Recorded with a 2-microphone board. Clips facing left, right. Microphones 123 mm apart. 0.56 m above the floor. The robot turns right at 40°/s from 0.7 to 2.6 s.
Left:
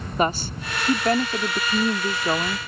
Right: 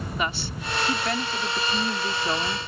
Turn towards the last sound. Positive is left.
turn(degrees=155)